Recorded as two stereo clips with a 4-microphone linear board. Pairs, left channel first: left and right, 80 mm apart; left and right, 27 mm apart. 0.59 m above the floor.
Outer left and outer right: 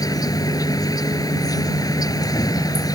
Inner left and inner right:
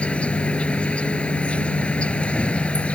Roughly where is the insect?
Left.